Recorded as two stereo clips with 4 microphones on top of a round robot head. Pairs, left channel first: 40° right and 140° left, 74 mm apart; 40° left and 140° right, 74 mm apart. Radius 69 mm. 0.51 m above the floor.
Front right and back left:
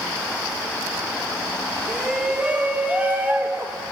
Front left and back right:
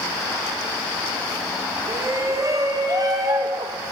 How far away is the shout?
About 1.1 m.